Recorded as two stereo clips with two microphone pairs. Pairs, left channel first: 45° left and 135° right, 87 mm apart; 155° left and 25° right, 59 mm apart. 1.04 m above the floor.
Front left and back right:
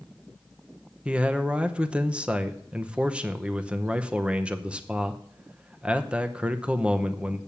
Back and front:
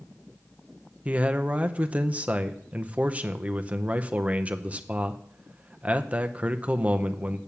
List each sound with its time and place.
1.1 s a man speaking: 65° right, 0.7 m